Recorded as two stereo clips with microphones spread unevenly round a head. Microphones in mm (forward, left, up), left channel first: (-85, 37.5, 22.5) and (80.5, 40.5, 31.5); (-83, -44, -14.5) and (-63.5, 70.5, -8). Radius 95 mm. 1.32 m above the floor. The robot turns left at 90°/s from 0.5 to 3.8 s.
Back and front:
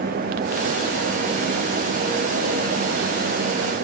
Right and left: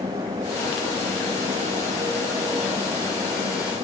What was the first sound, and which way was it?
Only background noise.